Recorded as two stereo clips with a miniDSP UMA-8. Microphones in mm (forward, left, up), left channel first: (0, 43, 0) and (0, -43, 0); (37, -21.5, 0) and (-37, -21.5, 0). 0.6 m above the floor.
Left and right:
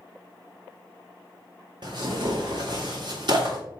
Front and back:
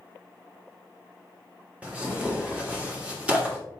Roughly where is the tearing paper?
Right.